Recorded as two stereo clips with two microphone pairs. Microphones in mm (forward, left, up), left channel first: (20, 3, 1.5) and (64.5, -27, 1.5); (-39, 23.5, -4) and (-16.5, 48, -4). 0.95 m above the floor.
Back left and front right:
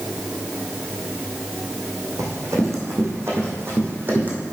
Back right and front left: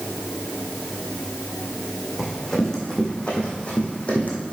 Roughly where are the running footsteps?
Ahead right.